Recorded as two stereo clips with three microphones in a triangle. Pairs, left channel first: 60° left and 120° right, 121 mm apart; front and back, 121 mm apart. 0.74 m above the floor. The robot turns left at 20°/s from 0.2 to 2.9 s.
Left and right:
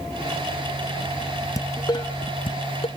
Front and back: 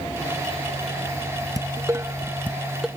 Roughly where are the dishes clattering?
Behind left.